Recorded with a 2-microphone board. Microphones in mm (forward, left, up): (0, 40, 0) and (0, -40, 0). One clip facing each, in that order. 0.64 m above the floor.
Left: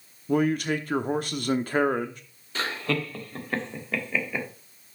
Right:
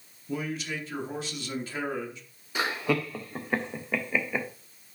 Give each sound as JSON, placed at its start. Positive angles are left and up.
{"t": 0.3, "sound": "a man speaking", "side_deg": 60, "distance_m": 0.9}
{"t": 2.5, "sound": "laughter", "side_deg": -15, "distance_m": 1.2}